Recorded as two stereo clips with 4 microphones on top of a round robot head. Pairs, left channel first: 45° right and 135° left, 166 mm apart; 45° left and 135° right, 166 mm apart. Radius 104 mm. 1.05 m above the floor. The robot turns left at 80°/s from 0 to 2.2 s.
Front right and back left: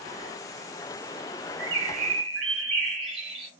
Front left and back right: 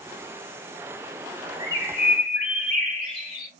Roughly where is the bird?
Behind left.